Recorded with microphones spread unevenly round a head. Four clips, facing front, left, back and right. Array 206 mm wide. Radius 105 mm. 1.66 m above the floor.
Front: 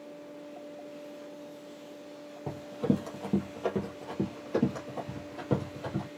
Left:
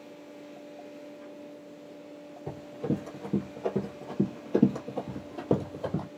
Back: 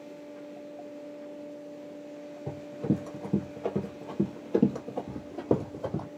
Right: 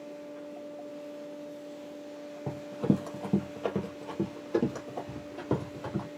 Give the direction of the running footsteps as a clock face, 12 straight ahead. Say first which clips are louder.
Right 3 dB, front 1 dB; 1 o'clock.